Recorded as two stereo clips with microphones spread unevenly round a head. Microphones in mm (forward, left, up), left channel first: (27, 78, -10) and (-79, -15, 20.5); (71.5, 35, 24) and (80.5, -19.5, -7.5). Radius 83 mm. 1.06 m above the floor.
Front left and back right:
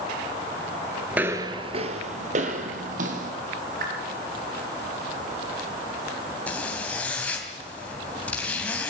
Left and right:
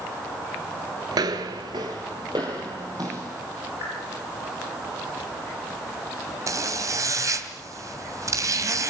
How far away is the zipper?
About 2.5 m.